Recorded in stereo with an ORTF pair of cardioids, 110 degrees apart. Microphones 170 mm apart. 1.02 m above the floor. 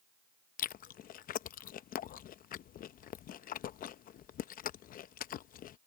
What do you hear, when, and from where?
0.6 s chewing: 55° left